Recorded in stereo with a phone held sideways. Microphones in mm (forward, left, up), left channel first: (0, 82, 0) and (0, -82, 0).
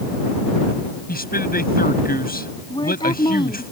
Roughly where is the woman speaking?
Left.